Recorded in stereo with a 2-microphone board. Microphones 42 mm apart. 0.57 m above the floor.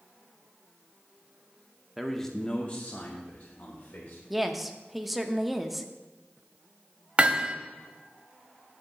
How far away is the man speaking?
About 0.7 m.